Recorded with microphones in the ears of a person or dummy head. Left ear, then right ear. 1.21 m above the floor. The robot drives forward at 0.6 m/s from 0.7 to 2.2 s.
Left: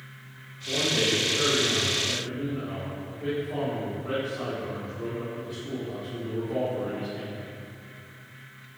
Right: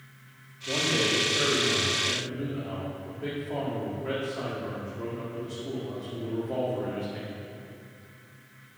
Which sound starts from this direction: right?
A man speaking, at 0.7 s.